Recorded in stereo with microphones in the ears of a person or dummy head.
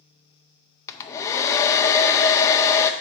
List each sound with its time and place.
0.9 s a hair dryer: 25° left (ahead or behind), 0.5 m